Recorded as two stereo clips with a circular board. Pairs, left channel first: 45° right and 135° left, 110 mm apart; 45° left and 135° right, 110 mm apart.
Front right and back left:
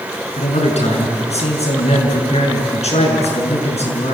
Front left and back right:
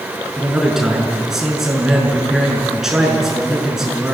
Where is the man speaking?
50° right, 6 m.